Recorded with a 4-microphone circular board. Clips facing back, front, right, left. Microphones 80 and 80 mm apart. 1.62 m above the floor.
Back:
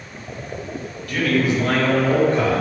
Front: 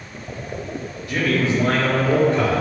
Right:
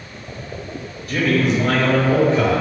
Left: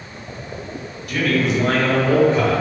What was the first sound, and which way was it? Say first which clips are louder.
A man speaking: back 1 dB, right 1 dB; 60° right.